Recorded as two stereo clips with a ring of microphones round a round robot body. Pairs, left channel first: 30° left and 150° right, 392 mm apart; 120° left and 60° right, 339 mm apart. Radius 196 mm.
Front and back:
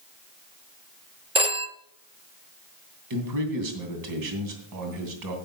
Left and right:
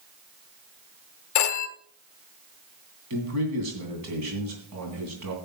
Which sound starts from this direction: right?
A man speaking, at 3.1 s.